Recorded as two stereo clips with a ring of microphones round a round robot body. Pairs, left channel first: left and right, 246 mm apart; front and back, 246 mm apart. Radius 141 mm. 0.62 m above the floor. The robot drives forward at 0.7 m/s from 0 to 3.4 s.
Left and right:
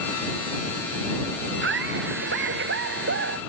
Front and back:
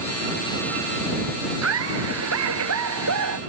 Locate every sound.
1.6 s laughter: 140° right; by 3.4 s 145° right